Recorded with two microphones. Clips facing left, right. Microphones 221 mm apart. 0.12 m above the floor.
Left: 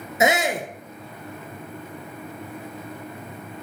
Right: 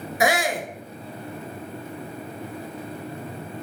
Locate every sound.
0.2 s a shout: 20° left (ahead or behind), 1.6 m